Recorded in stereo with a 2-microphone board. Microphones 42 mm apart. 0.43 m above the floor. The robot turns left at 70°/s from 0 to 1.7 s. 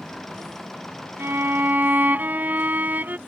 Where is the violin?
95° right; by 3.2 s 130° right.